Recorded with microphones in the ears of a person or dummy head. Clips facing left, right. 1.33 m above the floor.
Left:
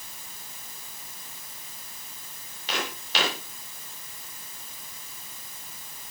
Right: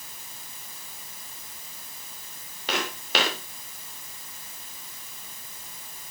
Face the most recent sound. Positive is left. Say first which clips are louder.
# right 3 dB
turn(degrees=-50)  # may be behind; listen again after turning